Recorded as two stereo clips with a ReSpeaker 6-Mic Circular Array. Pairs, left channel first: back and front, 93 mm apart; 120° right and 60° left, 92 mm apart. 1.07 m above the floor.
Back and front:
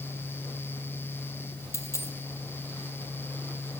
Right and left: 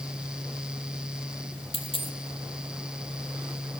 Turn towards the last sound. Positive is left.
turn(degrees=-120)